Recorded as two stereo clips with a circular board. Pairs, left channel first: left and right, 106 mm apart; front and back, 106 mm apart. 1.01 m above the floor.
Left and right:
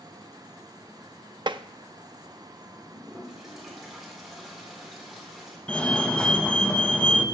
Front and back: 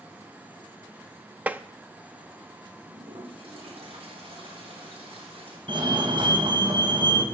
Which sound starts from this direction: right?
Tapping, at 1.5 s.